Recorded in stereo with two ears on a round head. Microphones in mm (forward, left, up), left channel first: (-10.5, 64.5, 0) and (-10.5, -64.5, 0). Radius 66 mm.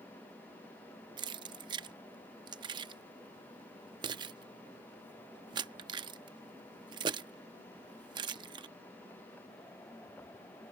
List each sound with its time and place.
1.2 s keys jangling: 30° right (ahead or behind)